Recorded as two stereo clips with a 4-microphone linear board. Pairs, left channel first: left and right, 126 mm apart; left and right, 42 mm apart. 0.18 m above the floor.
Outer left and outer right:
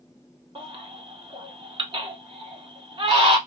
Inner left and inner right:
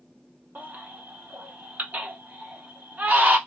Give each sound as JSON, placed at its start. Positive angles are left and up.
{"t": 0.6, "sound": "a baby crying", "side_deg": -45, "distance_m": 0.8}